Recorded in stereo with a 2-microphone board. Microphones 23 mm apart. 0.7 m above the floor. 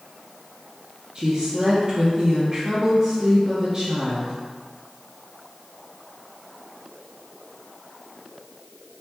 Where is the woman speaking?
35° right (ahead or behind), 0.7 m.